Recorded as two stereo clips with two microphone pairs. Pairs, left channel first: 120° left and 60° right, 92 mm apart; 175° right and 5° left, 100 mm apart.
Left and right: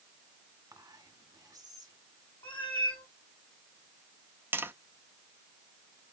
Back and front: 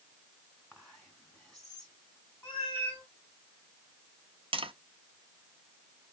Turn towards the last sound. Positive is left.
turn(degrees=5)